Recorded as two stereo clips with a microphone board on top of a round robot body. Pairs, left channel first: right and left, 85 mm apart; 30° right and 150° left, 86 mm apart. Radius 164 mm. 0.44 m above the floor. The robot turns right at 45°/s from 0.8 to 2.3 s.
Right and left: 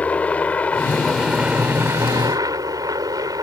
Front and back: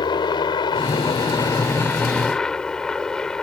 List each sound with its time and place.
0.0 s a helicopter: 15° right; by 3.4 s 50° left